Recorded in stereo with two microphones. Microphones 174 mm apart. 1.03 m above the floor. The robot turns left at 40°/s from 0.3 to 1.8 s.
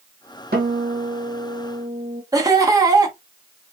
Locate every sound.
0.5 s a guitar: 90° right, 1.5 m; by 2.2 s 145° right, 1.5 m
2.3 s laughter: 20° right (ahead or behind), 0.7 m